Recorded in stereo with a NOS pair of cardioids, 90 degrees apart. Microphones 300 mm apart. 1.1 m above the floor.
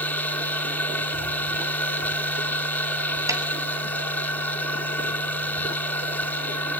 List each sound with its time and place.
0.0 s a machine running: 5° left, 7 m
3.3 s a snare drum: 10° right, 5.5 m